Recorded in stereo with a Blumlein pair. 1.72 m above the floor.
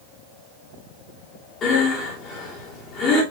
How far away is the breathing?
About 3 m.